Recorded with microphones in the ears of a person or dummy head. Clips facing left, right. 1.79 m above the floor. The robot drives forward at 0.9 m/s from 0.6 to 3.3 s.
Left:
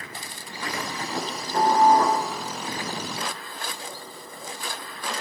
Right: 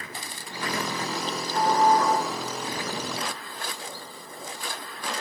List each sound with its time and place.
1.1 s dishes clattering: 60° left (ahead or behind), 7.5 m; by 2.2 s 50° left (ahead or behind), 8 m